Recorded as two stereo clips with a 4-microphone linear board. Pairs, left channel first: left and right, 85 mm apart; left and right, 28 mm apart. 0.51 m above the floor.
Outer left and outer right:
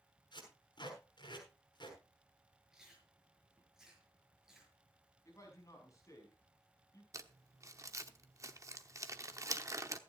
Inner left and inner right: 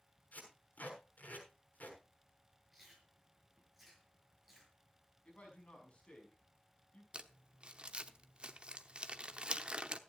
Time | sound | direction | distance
0.3 | tape being pulled | 60° left (ahead or behind) | 7 m
2.7 | chewing | 5° right (ahead or behind) | 5.5 m
5.2 | a man speaking | 35° left (ahead or behind) | 5 m
7.1 | crumpling | 35° right (ahead or behind) | 1.0 m